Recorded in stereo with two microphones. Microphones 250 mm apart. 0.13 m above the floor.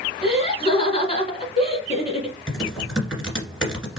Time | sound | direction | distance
0.2 | laughter | 25° left (ahead or behind) | 1.2 m
2.5 | typing on a keyboard | centre (ahead or behind) | 1.9 m